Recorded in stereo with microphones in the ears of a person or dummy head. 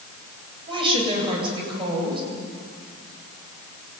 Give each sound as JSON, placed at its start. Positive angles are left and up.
{"t": 0.7, "sound": "a woman speaking", "side_deg": -30, "distance_m": 8.5}